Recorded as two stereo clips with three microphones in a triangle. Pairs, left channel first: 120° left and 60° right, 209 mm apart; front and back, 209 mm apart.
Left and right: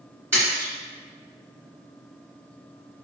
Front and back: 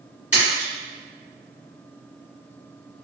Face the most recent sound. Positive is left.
turn(degrees=10)